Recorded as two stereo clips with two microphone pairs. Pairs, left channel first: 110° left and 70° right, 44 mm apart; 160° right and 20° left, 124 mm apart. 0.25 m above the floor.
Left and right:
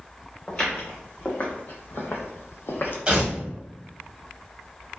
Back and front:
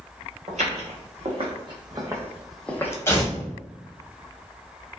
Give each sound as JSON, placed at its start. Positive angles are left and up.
{"t": 0.5, "sound": "footsteps", "azimuth_deg": 40, "distance_m": 1.3}
{"t": 3.1, "sound": "tearing paper", "azimuth_deg": -115, "distance_m": 0.8}